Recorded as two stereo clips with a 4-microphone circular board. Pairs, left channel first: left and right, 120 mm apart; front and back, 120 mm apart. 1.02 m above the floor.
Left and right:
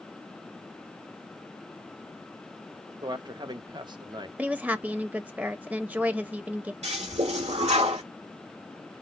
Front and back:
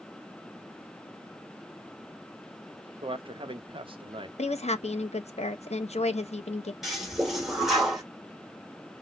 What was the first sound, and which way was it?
A man speaking, 140° right.